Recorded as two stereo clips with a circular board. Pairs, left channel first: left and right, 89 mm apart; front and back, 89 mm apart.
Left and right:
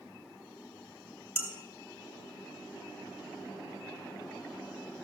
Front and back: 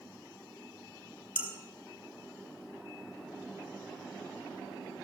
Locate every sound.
1.4 s dishes clattering: 160° right, 3 m